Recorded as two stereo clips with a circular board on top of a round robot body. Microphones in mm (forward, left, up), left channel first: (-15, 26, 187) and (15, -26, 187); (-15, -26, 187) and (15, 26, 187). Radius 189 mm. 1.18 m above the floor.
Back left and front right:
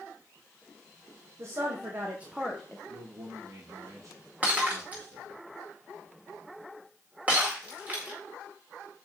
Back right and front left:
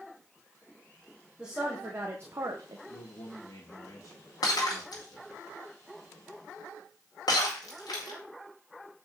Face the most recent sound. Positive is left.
turn(degrees=-130)